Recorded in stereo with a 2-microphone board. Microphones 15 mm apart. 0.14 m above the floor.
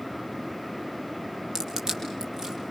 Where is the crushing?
50° right (ahead or behind), 5 m.